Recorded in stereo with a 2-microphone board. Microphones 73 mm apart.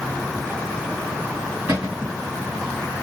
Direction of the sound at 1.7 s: 30° right (ahead or behind).